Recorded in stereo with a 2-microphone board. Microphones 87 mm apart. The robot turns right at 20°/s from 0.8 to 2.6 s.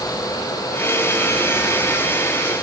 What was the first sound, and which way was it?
Only background noise.